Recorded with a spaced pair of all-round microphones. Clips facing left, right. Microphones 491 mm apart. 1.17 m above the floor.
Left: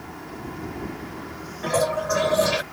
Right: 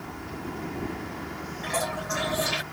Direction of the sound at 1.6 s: 80° left.